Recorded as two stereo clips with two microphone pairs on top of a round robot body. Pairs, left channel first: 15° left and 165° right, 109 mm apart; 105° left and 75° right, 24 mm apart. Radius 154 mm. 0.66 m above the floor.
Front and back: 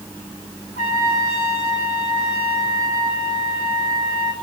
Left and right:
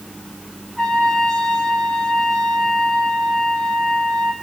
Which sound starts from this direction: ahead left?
A trumpet, at 0.8 s.